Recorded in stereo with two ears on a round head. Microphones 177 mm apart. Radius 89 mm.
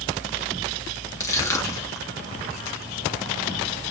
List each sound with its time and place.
1.2 s crushing: 15° left (ahead or behind), 1.0 m